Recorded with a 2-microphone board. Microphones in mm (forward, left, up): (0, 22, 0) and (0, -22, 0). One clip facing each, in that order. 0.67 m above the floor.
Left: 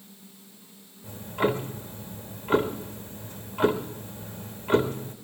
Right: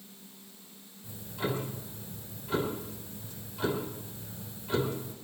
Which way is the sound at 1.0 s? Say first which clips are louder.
Left 8 dB; 55° left (ahead or behind).